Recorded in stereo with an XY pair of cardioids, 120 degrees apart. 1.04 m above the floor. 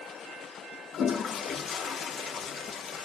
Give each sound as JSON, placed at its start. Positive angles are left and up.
{"t": 0.9, "sound": "a toilet flushing", "azimuth_deg": 50, "distance_m": 0.8}